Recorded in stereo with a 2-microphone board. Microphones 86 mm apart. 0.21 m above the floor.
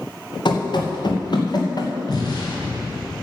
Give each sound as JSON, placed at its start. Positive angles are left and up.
{"t": 0.5, "sound": "running footsteps", "side_deg": 65, "distance_m": 2.5}
{"t": 2.1, "sound": "an explosion", "side_deg": 55, "distance_m": 3.5}